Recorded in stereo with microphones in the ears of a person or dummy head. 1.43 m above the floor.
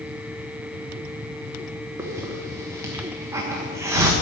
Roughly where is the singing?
I don't hear singing.